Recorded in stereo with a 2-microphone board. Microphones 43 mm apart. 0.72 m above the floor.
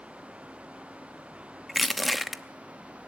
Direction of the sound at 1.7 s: Centre (ahead or behind).